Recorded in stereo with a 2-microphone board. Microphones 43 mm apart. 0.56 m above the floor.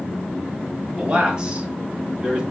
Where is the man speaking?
20° right (ahead or behind), 1.5 m.